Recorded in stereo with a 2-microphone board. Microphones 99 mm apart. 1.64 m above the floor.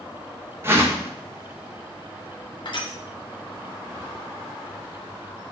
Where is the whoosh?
25° right (ahead or behind), 0.9 m.